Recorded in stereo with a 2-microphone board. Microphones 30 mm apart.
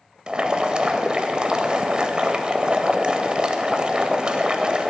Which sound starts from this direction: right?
Boiling, at 0.3 s.